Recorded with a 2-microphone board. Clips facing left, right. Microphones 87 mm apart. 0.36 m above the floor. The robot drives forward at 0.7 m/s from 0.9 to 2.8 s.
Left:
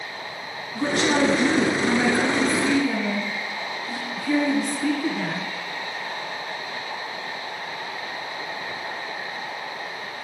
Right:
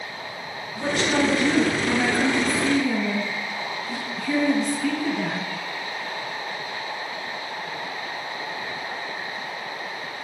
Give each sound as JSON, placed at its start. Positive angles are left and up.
{"t": 0.8, "sound": "a woman speaking", "side_deg": 70, "distance_m": 2.5}